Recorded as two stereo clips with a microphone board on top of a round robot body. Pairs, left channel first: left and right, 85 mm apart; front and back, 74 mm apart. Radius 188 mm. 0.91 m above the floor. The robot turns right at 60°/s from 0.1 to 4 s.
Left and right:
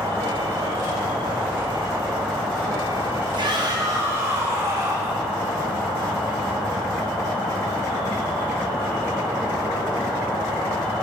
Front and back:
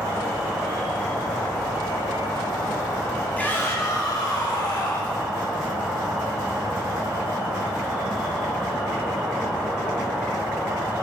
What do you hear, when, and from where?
0.0 s an insect: 130° right, 1.4 m; by 11.0 s 105° left, 1.4 m
3.4 s a shout: 70° right, 1.9 m; by 5.2 s 30° right, 1.9 m